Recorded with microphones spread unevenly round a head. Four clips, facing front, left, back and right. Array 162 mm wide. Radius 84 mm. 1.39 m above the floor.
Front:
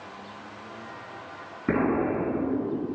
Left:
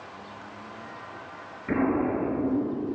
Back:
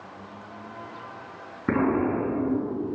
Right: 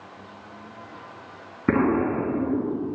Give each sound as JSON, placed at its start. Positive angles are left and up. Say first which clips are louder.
{"t": 1.7, "sound": "an explosion", "louder": "right 4 dB, back 1 dB", "azimuth_deg": -95, "distance_m": 4.0}